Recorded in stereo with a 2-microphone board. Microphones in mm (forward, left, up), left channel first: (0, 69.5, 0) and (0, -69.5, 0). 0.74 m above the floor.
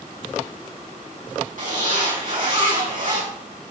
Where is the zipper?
70° right (ahead or behind), 5 m.